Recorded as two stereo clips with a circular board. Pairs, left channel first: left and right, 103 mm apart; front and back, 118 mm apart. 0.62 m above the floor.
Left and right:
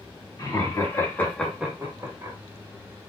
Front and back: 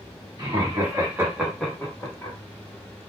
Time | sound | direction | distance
0.4 | laughter | 125° left | 1.7 m